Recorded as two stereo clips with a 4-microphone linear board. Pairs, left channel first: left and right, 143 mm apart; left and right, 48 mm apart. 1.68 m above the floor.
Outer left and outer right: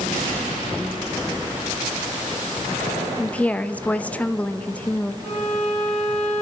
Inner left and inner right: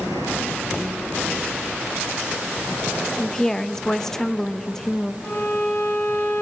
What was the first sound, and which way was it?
A woman speaking, 10° left (ahead or behind).